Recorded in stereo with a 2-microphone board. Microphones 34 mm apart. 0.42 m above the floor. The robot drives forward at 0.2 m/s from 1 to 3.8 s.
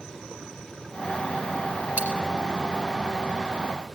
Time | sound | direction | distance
2.0 | a dropped coin | 70° right (ahead or behind) | 3 m